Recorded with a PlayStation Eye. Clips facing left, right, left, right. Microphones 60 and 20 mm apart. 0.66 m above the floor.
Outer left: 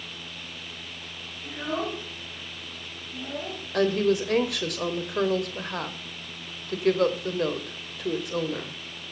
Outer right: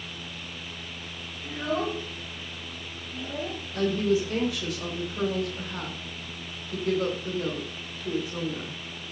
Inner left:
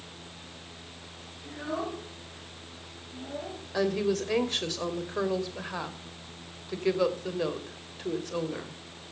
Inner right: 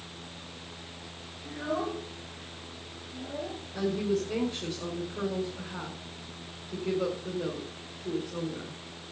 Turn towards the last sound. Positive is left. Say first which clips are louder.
# outer left 2 dB, inner left 2 dB
turn(degrees=70)  # may be behind; listen again after turning